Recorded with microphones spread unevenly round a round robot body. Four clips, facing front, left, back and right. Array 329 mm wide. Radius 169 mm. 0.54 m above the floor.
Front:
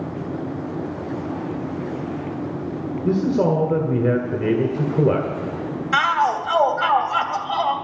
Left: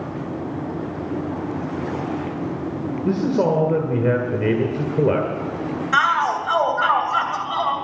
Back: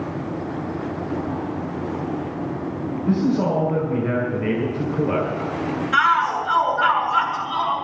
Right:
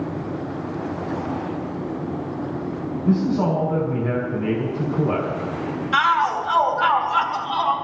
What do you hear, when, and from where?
3.0 s a man speaking: 50° left, 2 m
5.9 s a shout: 15° left, 2.5 m